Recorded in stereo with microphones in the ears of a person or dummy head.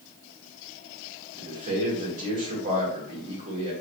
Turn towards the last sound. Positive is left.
turn(degrees=-45)  # may be behind; listen again after turning